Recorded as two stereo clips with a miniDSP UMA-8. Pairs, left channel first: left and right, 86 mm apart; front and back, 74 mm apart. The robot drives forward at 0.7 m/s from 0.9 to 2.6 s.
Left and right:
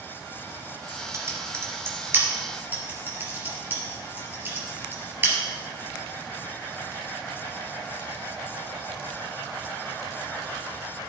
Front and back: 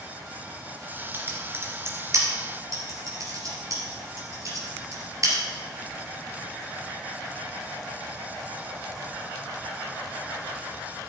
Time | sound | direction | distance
1.1 | typing on a keyboard | 130° right | 1.7 m